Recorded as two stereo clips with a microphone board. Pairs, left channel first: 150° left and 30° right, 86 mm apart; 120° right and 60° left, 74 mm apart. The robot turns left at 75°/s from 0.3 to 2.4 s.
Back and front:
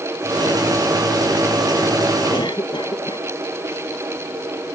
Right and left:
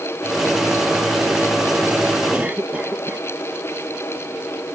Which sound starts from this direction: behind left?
A cough, at 2.3 s.